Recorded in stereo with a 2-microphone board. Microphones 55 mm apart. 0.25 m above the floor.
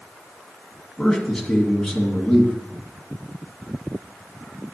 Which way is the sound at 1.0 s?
10° left (ahead or behind).